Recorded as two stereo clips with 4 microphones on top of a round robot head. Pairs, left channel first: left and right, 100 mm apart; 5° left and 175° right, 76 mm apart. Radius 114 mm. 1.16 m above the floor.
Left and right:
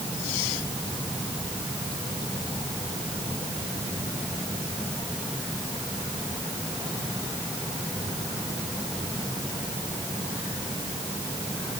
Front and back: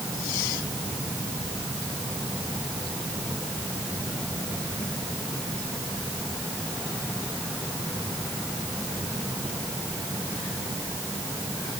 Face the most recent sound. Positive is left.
No sound to turn to.